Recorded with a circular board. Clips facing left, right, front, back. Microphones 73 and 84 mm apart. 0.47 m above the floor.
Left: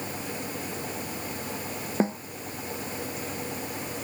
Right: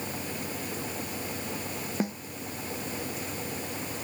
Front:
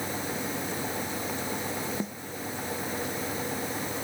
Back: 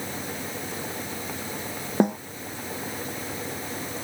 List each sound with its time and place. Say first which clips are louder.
2.0 s a snare drum: left 6 dB, back 13 dB; 150° left